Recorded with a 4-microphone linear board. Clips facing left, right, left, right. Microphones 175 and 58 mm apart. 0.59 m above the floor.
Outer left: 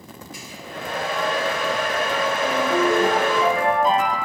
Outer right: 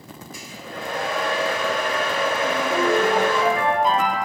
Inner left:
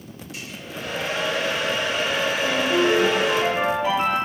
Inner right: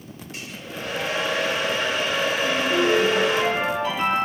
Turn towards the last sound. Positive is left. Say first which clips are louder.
# outer left 3 dB, inner left 2 dB
turn(degrees=5)  # may be behind; listen again after turning